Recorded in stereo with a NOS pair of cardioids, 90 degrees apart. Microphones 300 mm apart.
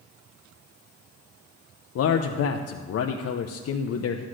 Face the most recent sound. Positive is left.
turn(degrees=55)